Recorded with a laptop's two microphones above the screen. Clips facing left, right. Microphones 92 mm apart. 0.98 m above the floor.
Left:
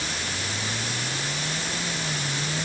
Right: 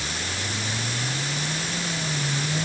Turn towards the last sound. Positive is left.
No sound to turn to.